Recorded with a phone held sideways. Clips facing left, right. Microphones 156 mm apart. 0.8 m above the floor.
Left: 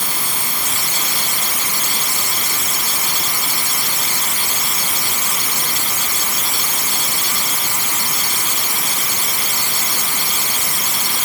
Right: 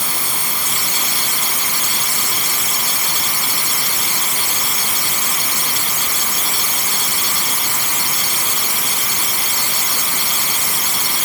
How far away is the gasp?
No gasp in this recording.